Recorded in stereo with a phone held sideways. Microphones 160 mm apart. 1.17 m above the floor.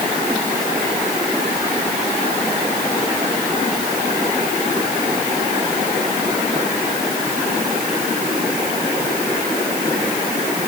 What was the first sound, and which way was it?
Only background noise.